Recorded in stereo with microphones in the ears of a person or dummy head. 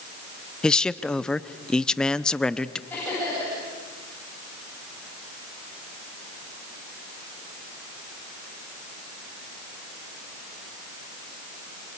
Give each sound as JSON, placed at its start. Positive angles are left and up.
{"t": 0.6, "sound": "a man speaking", "side_deg": 5, "distance_m": 0.6}
{"t": 2.9, "sound": "laughter", "side_deg": 10, "distance_m": 10.0}